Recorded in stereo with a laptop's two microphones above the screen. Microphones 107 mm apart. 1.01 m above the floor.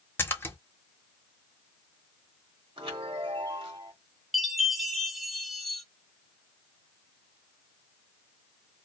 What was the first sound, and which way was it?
A splash, 20° left (ahead or behind).